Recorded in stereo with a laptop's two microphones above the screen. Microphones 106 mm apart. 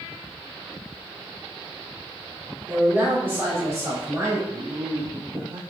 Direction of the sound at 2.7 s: 15° right (ahead or behind).